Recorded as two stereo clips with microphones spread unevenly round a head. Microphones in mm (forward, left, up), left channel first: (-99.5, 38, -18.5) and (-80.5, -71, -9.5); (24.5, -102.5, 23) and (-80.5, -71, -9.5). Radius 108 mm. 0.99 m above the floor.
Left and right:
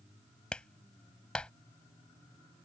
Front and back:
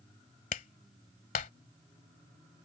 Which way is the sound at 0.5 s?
15° left.